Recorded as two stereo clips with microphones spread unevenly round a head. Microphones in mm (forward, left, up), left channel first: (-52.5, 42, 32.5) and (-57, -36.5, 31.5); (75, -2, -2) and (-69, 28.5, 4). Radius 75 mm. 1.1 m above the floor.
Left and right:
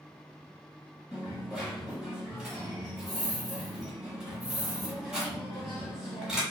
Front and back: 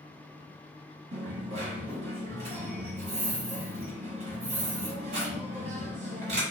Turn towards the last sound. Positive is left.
turn(degrees=-175)